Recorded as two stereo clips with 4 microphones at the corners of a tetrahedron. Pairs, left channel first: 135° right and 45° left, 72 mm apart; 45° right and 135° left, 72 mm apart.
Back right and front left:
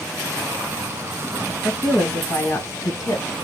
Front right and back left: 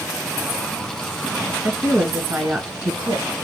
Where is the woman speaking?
160° left, 1.8 m; by 3.3 s 175° right, 1.3 m.